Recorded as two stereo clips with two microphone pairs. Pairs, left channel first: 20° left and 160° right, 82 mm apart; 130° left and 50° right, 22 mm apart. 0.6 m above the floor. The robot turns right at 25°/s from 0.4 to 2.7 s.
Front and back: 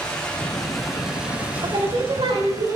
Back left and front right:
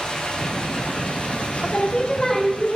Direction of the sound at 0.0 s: 95° left.